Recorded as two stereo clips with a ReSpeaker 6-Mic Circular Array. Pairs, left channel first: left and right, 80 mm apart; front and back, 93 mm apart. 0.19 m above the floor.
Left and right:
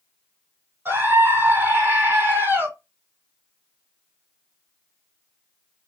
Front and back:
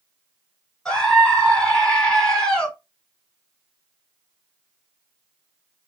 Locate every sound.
0.8 s a scream: 75° right, 1.3 m